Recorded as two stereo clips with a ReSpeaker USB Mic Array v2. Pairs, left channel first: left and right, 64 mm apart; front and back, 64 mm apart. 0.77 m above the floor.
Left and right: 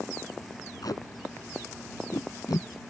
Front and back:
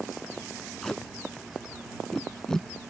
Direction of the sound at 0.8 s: 80° left.